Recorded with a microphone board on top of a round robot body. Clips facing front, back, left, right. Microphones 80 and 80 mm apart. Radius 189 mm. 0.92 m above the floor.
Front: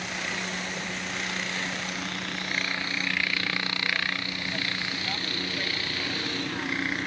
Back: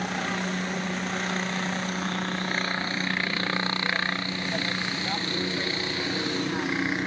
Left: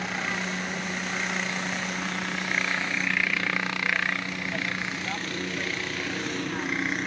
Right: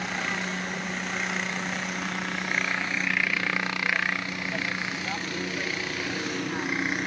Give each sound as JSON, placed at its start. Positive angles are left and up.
{"t": 0.0, "sound": "a helicopter", "azimuth_deg": 180}